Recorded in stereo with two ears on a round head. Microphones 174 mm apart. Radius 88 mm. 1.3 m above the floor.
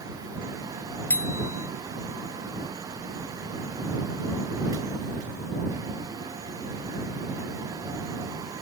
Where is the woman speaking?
I don't hear a woman speaking.